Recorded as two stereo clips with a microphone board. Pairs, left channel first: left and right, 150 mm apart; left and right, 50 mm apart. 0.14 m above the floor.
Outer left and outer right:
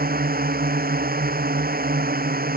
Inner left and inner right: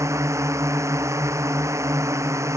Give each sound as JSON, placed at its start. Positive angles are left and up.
{"t": 0.0, "sound": "a drone", "side_deg": -80}